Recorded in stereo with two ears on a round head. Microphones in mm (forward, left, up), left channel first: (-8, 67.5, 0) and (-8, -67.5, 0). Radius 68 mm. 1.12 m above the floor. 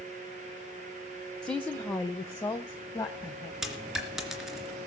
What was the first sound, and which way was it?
A woman speaking, 5° left (ahead or behind).